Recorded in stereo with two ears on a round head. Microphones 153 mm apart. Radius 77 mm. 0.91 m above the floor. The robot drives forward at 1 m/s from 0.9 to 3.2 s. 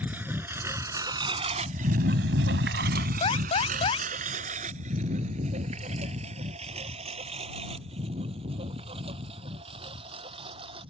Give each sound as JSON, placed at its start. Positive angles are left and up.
{"t": 0.0, "sound": "a lawn mower", "side_deg": -10}
{"t": 3.2, "sound": "an alarm", "side_deg": 30}